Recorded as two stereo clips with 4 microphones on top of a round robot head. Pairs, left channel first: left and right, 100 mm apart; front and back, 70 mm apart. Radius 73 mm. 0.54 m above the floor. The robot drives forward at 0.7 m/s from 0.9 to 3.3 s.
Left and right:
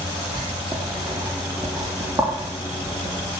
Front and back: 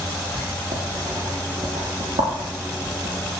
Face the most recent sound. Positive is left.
turn(degrees=-150)